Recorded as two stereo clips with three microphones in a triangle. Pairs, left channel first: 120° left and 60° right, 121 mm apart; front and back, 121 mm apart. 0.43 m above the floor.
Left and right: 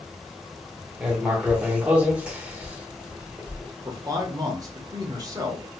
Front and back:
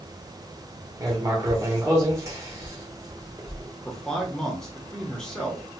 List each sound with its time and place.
1.0 s writing: 135° right, 1.1 m
3.9 s a man speaking: 80° right, 1.1 m